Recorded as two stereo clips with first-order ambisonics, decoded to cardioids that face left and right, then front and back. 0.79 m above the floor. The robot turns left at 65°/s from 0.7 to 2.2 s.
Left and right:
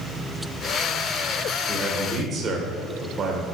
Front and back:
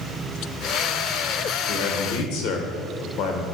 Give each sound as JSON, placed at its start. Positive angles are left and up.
{"t": 1.7, "sound": "a man speaking", "azimuth_deg": 5, "distance_m": 2.0}